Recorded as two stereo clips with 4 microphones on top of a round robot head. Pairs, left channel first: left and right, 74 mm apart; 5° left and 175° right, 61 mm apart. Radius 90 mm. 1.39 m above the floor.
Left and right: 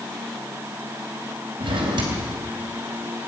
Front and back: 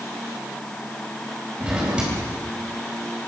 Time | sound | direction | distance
1.6 | a drawer | 100° right | 4 m